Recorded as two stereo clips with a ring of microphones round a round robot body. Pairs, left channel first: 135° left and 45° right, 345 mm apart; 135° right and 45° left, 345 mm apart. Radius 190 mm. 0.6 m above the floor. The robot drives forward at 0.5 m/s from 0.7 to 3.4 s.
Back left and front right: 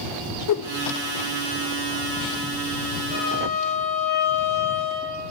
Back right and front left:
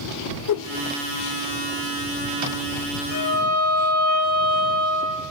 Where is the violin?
Straight behind, 6 m.